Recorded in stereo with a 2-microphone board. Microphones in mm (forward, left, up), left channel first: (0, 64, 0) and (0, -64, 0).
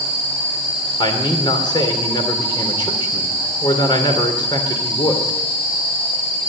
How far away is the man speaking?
About 3 m.